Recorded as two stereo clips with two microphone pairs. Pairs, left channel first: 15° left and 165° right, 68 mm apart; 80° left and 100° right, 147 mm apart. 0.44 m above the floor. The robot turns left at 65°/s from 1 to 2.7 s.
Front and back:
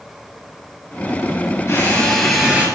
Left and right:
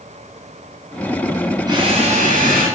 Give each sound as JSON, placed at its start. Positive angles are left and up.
{"t": 1.7, "sound": "a drill", "azimuth_deg": -35, "distance_m": 9.5}